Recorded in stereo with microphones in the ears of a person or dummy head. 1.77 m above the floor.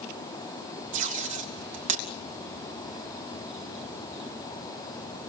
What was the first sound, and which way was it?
Tape being pulled, 35° right (ahead or behind).